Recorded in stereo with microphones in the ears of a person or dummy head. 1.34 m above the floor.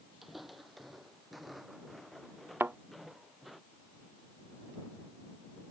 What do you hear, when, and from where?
0.2 s footsteps: 5° right (ahead or behind); by 3.6 s centre (ahead or behind)
2.6 s a thud: 10° right (ahead or behind)